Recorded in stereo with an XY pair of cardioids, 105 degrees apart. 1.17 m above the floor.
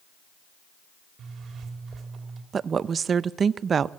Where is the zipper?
55° right, 3.5 m.